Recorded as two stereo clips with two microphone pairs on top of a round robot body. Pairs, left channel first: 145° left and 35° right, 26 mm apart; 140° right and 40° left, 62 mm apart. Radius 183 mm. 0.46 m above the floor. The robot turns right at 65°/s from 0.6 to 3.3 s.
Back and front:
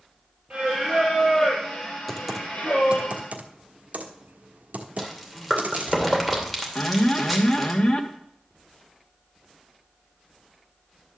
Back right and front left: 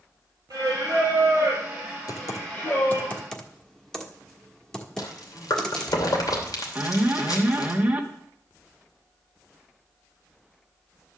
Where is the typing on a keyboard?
135° right, 1.4 m; by 6.0 s 60° right, 1.4 m.